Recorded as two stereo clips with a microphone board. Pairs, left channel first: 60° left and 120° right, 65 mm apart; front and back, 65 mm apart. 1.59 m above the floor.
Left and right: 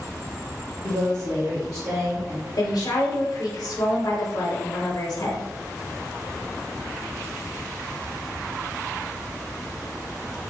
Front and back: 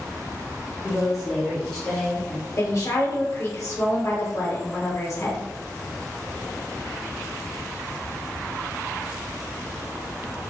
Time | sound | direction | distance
0.8 | a woman speaking | 105° right | 1.4 m
2.6 | a woman speaking | 35° left | 1.1 m